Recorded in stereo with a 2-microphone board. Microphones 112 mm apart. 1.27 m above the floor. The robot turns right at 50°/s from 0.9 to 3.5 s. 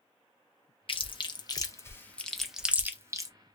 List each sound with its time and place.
0.9 s chewing: 50° left (ahead or behind), 0.6 m; by 3.3 s 35° right (ahead or behind), 0.6 m